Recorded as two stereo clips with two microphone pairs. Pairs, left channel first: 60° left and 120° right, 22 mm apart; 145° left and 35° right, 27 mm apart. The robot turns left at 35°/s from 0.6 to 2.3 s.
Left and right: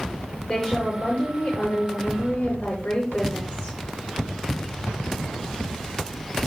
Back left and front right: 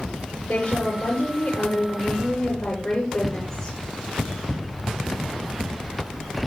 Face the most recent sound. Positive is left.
turn(degrees=75)